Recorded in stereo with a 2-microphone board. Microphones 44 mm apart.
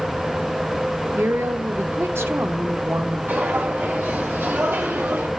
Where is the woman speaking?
70° right (ahead or behind), 0.9 m.